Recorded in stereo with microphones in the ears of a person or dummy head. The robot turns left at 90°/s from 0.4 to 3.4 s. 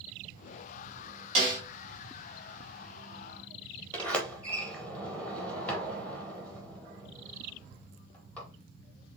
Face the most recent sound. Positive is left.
turn(degrees=10)  # may be behind; listen again after turning